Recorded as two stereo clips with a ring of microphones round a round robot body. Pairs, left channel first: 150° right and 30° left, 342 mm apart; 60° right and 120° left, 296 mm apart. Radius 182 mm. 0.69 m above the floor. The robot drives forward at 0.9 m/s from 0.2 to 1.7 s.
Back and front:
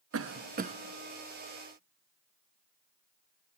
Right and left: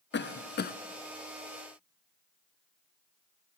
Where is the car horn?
No car horn in this recording.